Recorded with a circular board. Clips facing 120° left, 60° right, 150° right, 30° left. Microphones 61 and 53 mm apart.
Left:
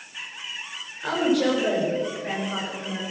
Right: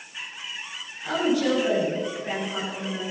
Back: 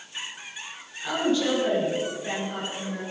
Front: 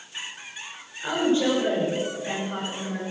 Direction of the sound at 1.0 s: 95° left.